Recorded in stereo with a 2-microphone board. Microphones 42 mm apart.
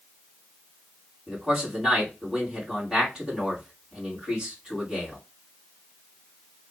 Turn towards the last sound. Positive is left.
turn(degrees=-10)  # may be behind; listen again after turning